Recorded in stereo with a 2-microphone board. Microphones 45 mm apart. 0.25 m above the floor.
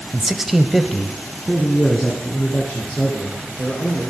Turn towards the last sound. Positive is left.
turn(degrees=10)  # may be behind; listen again after turning